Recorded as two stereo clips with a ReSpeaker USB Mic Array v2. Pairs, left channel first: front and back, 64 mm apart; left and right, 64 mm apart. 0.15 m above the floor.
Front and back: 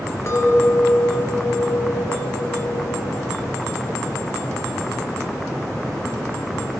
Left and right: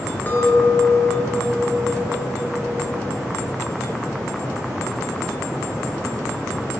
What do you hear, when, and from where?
0.3 s a clink: 30° left, 1.8 m